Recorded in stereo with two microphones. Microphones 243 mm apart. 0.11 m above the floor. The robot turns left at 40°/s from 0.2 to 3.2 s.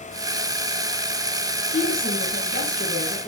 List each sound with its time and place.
1.7 s a woman speaking: 105° left, 3.5 m; by 3.3 s 45° left, 3.5 m